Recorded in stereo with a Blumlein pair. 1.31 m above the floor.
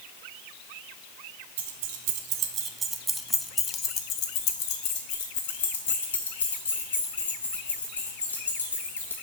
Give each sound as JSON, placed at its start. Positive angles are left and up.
{"t": 1.6, "sound": "keys jangling", "azimuth_deg": -55, "distance_m": 1.0}